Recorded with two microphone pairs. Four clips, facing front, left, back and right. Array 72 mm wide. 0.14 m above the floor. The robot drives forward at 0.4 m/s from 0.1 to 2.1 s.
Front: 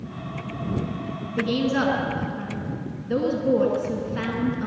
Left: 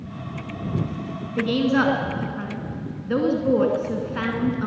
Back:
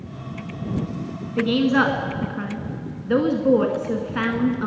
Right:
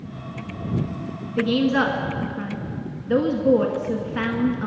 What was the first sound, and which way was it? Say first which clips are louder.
A woman speaking: right 1 dB, back 5 dB; 175° left.